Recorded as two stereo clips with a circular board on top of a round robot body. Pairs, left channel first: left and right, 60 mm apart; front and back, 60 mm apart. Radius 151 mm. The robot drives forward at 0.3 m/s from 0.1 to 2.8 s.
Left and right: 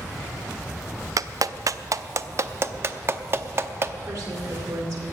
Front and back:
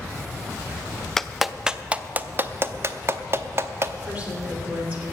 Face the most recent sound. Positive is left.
turn(degrees=-115)